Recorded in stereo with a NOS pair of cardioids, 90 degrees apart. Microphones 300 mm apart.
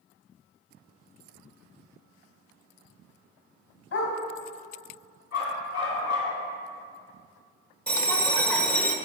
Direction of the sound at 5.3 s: 70° left.